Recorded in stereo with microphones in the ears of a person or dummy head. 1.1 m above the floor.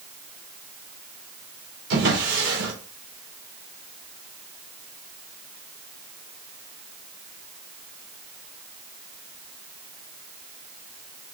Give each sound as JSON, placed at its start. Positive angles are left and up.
{"t": 1.9, "sound": "a drawer", "side_deg": -70, "distance_m": 2.0}